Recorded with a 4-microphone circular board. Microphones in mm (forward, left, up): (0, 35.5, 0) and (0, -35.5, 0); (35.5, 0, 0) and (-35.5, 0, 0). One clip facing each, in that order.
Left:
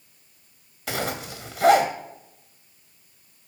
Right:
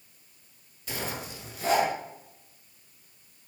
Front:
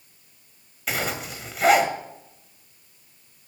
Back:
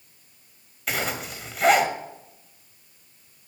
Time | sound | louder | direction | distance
0.9 | a zipper | left 6 dB, even | 85° left | 2 m